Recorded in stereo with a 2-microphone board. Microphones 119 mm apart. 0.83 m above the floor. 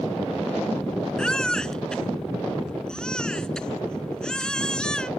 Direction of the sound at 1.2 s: 5° left (ahead or behind).